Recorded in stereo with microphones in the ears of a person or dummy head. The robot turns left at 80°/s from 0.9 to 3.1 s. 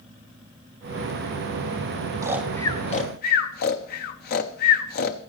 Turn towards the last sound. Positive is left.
turn(degrees=50)  # may be behind; listen again after turning